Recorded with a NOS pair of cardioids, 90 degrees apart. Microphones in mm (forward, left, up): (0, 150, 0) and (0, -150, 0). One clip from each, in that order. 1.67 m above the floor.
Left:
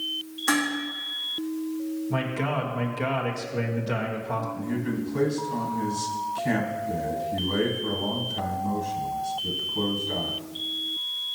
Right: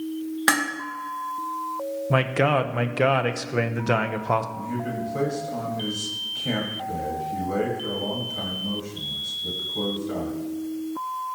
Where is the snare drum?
I don't hear a snare drum.